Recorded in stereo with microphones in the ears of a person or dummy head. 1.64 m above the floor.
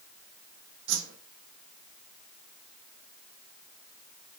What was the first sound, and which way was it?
A whoosh, 70° right (ahead or behind).